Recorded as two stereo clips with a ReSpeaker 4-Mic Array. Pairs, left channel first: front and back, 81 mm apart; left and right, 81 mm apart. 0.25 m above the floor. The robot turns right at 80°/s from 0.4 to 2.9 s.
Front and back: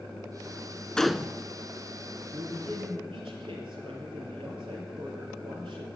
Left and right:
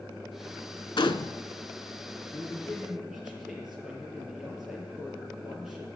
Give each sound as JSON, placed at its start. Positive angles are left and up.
{"t": 1.0, "sound": "a gunshot", "azimuth_deg": 80, "distance_m": 0.5}
{"t": 2.3, "sound": "a man speaking", "azimuth_deg": 140, "distance_m": 5.5}